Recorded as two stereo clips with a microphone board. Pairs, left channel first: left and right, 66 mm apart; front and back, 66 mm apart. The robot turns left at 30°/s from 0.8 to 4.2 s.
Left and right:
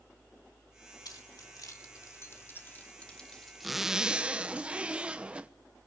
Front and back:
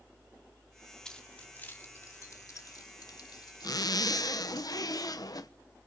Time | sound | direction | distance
1.1 | keys jangling | 80° left | 2.5 m
3.6 | a zipper | straight ahead | 1.0 m